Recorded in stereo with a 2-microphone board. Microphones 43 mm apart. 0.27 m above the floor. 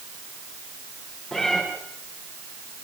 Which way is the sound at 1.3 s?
Centre (ahead or behind).